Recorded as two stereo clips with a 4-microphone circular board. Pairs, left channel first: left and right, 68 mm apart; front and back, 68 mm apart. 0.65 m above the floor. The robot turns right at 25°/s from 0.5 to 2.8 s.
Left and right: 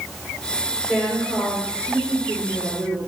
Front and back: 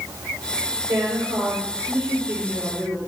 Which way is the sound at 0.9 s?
165° right.